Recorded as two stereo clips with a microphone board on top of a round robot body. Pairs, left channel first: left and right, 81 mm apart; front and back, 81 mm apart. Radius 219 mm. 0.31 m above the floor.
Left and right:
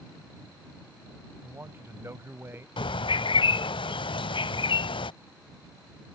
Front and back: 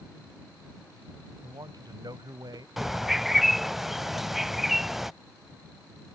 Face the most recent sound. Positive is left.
turn(degrees=95)